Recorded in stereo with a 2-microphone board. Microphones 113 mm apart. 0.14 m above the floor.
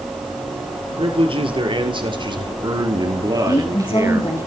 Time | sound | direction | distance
0.8 | a man speaking | 55° right (ahead or behind) | 3.5 m
3.5 | a woman speaking | 45° left (ahead or behind) | 3 m